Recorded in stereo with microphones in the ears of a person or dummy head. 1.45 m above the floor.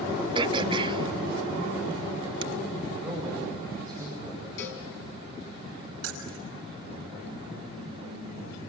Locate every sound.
0.3 s throat clearing: 30° right (ahead or behind), 1.1 m
2.9 s a man speaking: 5° left (ahead or behind), 8 m
4.6 s a cowbell: 65° left (ahead or behind), 3 m
6.0 s keys jangling: 85° right, 5 m